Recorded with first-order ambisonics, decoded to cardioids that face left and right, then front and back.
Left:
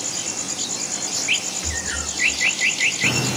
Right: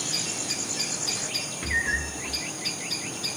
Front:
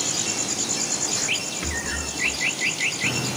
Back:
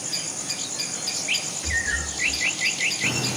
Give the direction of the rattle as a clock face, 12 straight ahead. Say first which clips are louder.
Right 1 dB, back 3 dB; 12 o'clock.